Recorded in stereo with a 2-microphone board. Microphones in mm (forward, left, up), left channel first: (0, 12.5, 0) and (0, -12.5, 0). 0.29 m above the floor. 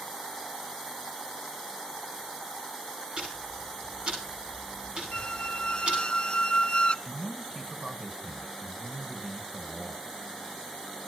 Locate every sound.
3.2 s ticking: 45° right (ahead or behind), 9.5 m
5.1 s a squeak: 45° left (ahead or behind), 0.6 m
7.0 s a man speaking: 30° right (ahead or behind), 2.5 m